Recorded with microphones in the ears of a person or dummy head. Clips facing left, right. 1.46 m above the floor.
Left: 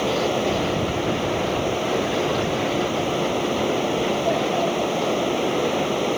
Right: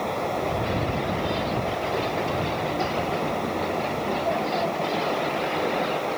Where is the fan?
40° left (ahead or behind).